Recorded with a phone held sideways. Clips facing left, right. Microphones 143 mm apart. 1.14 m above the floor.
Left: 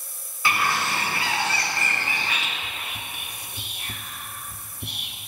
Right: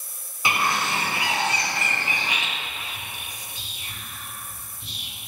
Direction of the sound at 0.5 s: 15° right (ahead or behind).